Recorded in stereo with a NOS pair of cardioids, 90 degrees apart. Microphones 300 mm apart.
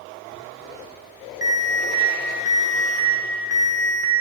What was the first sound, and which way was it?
An alarm, 10° right.